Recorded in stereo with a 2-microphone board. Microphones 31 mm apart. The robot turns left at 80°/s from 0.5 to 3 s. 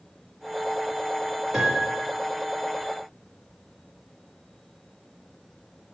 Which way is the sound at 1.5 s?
30° right.